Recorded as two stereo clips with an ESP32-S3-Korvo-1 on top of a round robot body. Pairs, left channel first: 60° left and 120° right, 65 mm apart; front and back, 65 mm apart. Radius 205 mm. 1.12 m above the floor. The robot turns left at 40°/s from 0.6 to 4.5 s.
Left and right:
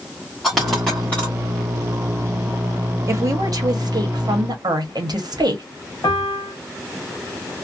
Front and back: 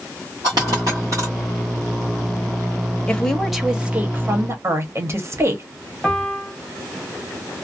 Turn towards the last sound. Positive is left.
turn(degrees=85)